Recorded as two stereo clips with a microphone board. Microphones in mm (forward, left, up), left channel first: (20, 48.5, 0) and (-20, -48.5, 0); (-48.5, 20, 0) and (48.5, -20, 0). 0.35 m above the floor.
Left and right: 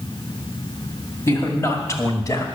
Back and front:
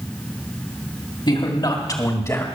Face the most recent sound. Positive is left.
turn(degrees=105)